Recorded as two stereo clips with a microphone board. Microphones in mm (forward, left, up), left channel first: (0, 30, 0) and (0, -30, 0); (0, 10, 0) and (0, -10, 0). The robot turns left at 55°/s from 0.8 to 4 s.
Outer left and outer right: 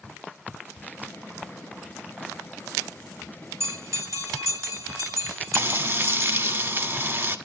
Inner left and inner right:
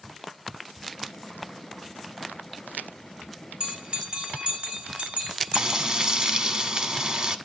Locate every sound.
3.6 s a bell: 50° right (ahead or behind), 3.5 m; by 6.5 s 70° right (ahead or behind), 3.5 m
5.5 s frying: 40° right (ahead or behind), 1.4 m